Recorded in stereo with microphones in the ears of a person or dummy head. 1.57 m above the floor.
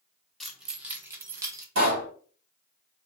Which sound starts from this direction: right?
A pop, at 1.8 s.